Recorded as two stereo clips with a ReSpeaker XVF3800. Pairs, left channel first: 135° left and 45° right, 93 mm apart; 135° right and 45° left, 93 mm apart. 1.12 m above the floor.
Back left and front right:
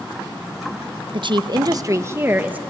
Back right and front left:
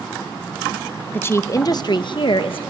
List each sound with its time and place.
1.1 s a woman speaking: 65° right, 0.8 m; by 2.6 s 120° right, 1.2 m